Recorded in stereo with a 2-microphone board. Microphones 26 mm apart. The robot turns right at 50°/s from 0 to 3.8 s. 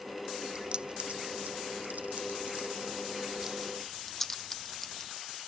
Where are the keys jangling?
30° right (ahead or behind); by 5.1 s 15° left (ahead or behind).